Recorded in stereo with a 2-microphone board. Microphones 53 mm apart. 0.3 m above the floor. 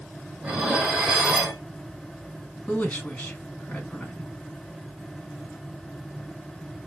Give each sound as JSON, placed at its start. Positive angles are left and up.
{"t": 0.4, "sound": "dishes clattering", "side_deg": -20, "distance_m": 1.0}
{"t": 2.7, "sound": "a woman speaking", "side_deg": 25, "distance_m": 2.0}